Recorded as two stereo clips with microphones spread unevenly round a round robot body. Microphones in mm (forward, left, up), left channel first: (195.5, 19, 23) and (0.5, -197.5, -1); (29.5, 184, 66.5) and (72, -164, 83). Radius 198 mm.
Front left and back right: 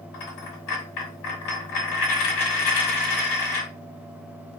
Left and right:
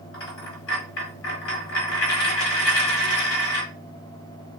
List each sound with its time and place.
0.1 s a dropped coin: 45° left, 1.5 m